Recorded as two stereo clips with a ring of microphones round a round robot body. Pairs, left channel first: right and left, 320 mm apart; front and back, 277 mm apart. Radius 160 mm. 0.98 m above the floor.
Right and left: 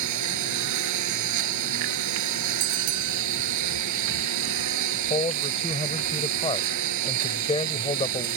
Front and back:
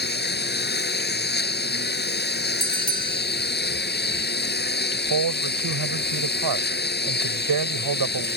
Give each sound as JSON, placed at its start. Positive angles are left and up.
{"t": 0.0, "sound": "a lawn mower", "azimuth_deg": 55}
{"t": 2.6, "sound": "a bell", "azimuth_deg": 70}
{"t": 4.9, "sound": "a man speaking", "azimuth_deg": -165}